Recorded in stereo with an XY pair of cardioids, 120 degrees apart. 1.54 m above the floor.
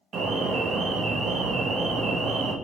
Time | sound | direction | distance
0.1 | an alarm | 55° right | 1.0 m